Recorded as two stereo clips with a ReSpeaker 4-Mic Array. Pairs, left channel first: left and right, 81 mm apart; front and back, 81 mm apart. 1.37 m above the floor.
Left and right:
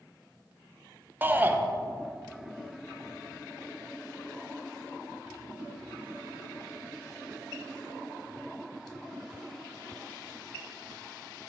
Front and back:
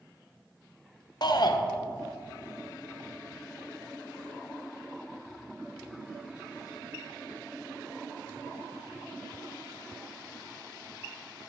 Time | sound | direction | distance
1.2 | a shout | 25° right | 0.6 m